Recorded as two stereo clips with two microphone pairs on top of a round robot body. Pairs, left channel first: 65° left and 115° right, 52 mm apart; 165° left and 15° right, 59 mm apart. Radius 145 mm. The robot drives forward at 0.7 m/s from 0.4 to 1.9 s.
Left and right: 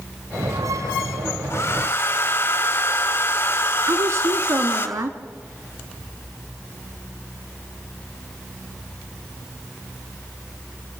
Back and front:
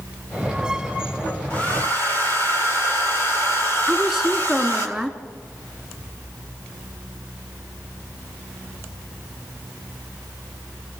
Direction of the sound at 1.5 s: 100° left.